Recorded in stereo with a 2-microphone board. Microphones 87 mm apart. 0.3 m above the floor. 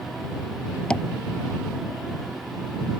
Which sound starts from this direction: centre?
Tapping, at 0.9 s.